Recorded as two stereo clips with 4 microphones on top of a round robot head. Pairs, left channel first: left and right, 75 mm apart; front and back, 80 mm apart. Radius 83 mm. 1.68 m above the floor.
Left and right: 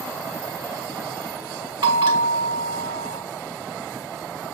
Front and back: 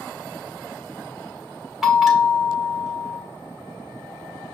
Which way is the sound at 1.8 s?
95° right.